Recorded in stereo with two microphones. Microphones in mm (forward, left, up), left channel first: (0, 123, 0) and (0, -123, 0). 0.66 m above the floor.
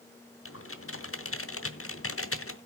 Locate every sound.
0.5 s typing on a keyboard: 55° left (ahead or behind), 0.8 m